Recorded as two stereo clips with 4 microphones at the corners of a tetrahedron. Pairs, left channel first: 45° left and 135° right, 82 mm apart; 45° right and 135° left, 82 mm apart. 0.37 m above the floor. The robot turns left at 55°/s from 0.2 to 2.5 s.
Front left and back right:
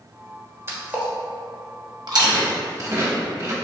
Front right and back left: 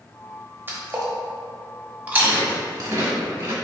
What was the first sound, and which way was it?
A splash, 175° right.